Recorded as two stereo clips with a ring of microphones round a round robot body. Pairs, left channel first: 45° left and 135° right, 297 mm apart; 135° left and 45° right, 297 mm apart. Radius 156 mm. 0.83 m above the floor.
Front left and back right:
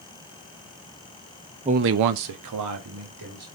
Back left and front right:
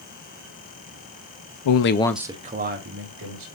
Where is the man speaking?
155° left, 0.7 m; by 3.5 s 95° right, 2.5 m.